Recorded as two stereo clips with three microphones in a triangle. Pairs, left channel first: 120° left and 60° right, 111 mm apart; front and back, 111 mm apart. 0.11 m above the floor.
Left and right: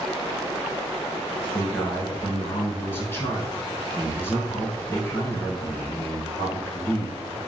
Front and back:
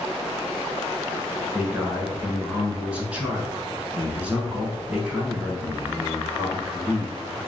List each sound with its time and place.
1.5 s a man speaking: 130° left, 1.1 m